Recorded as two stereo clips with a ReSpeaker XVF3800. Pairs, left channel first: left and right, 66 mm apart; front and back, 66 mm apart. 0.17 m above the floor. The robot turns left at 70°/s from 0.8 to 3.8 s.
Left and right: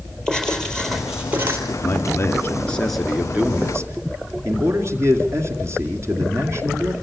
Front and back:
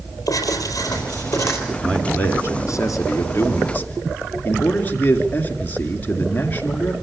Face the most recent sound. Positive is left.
turn(degrees=-55)